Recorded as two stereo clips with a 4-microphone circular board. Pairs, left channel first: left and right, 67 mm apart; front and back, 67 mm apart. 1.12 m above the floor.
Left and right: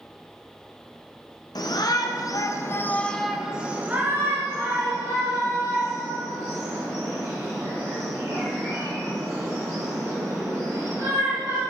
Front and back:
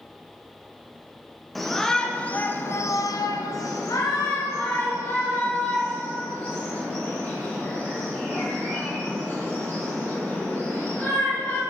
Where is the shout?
90° left, 0.9 m; by 11.6 s 60° right, 5 m.